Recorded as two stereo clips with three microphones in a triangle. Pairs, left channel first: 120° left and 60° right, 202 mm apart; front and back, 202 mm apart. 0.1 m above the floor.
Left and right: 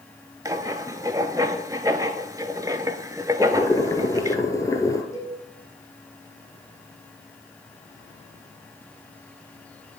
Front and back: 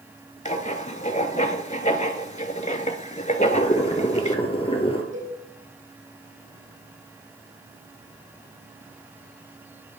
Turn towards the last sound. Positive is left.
turn(degrees=-165)